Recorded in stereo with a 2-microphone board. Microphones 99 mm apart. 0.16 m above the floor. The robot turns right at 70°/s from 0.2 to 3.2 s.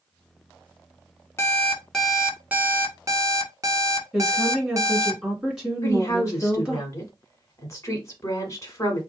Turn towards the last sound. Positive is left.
turn(degrees=30)  # may be behind; listen again after turning